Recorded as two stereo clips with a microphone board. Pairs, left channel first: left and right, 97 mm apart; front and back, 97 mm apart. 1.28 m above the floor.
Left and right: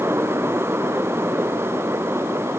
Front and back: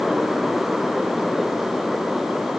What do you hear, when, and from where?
Only background noise.